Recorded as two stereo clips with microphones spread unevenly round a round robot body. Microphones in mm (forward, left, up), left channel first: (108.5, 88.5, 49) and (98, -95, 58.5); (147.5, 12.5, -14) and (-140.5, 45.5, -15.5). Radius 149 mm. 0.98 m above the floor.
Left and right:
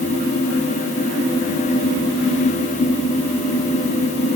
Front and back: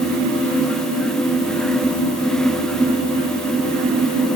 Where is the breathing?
I don't hear breathing.